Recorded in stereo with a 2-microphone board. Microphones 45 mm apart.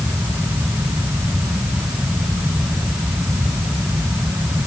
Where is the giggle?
I don't hear a giggle.